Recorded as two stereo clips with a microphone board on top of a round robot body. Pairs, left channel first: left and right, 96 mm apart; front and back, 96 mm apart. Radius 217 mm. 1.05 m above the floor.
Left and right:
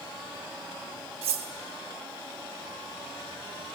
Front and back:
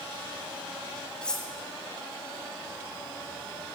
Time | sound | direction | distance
1.2 | cutlery clinking | 80° right | 0.6 m